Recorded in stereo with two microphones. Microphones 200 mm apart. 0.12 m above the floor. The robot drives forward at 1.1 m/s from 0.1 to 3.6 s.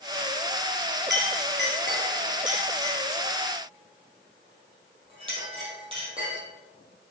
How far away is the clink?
About 1.7 m.